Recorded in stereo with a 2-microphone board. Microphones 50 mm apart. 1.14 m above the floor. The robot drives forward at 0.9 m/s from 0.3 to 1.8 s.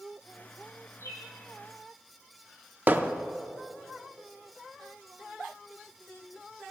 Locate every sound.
1.0 s a bird: 80° left, 4.5 m; by 1.3 s 85° left, 4.5 m
2.9 s hammering: 35° right (ahead or behind), 0.5 m